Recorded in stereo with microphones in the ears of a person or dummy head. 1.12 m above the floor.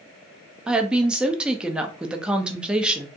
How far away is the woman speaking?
About 0.5 m.